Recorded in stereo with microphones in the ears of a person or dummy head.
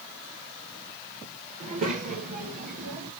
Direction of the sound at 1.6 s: 40° right (ahead or behind).